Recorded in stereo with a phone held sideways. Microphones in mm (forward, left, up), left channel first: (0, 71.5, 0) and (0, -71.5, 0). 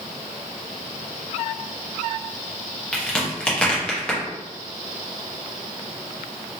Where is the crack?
10° left (ahead or behind), 0.9 m.